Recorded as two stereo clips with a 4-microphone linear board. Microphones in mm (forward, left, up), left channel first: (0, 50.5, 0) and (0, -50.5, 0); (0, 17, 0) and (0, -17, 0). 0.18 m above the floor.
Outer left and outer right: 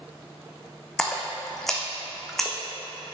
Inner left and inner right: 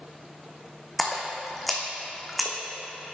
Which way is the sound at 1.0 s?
5° left (ahead or behind).